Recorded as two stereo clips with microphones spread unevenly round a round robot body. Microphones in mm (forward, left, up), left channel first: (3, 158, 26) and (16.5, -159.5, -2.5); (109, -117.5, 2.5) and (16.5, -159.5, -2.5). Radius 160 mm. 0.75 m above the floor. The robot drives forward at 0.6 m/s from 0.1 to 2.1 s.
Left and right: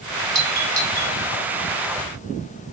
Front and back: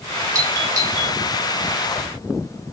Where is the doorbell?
145° right, 1.7 m; by 1.2 s 160° right, 1.9 m.